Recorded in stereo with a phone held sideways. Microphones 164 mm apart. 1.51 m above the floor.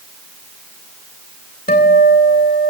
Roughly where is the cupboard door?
I don't hear a cupboard door.